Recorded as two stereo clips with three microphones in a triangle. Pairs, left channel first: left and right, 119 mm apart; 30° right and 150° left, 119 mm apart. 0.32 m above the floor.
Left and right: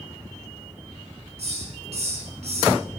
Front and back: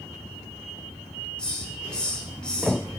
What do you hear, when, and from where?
1.4 s a hiss: 115° right, 1.5 m